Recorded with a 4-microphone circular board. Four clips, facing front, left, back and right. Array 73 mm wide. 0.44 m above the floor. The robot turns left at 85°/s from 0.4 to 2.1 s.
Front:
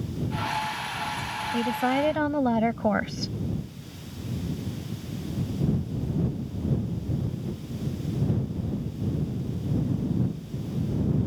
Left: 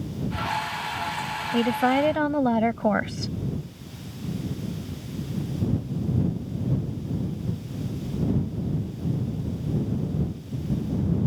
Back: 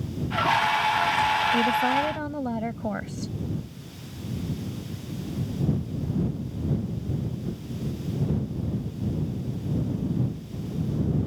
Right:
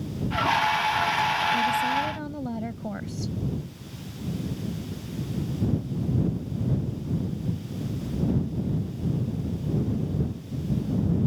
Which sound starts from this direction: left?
A woman speaking, at 1.5 s.